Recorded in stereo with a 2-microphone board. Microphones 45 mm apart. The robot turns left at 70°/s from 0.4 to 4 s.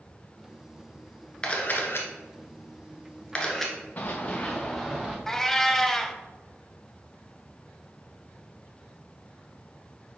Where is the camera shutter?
25° left (ahead or behind), 1.2 m; by 3.8 s 5° right (ahead or behind), 1.2 m.